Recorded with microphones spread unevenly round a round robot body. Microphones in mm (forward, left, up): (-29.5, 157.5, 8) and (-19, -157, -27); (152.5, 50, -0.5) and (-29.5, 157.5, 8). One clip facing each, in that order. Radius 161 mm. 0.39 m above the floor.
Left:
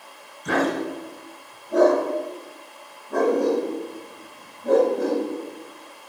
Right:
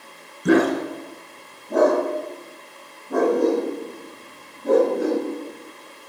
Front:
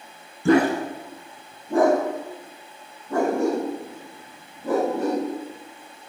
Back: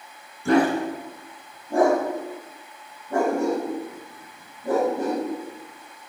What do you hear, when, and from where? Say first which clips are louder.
0.5 s a dog barking: right 6 dB, front 1 dB; 40° right, 1.0 m; by 6.1 s 50° right, 7 m